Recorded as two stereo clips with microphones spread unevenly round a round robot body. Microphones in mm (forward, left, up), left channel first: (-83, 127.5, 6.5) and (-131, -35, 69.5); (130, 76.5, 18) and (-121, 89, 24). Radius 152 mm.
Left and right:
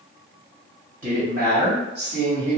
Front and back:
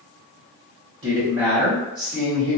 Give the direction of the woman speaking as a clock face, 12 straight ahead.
5 o'clock.